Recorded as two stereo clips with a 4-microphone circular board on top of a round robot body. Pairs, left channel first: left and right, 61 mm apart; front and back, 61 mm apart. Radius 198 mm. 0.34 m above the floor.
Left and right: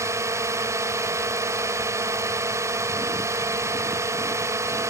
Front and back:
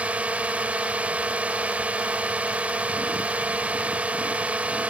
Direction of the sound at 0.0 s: 115° right.